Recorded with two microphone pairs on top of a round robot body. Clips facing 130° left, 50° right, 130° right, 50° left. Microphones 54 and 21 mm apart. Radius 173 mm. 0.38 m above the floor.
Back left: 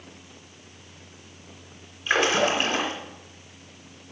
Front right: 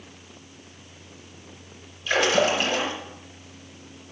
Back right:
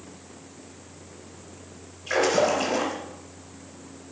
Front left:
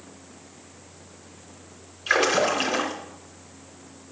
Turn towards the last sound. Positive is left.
turn(degrees=70)